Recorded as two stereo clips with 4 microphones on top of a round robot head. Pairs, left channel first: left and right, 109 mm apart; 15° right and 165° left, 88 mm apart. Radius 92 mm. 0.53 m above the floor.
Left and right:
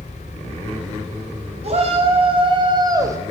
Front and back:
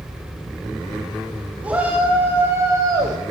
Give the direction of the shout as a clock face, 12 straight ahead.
4 o'clock.